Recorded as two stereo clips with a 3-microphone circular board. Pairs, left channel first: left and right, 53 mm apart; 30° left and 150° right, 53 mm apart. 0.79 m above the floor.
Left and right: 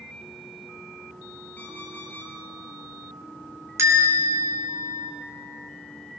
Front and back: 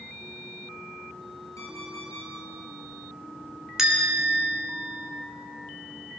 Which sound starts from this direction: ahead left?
An alarm clock, at 1.6 s.